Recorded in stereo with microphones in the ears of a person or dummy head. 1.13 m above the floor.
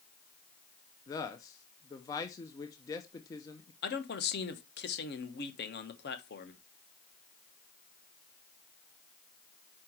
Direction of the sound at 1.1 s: 25° left (ahead or behind).